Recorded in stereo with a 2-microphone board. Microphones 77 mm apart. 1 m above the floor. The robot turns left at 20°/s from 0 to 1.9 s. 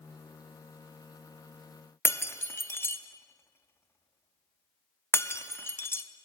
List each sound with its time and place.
2.0 s breaking glass: 30° left (ahead or behind), 0.5 m